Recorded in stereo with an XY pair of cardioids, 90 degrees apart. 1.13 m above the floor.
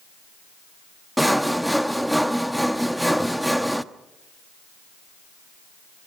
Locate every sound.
1.2 s sawing: 5° right, 1.0 m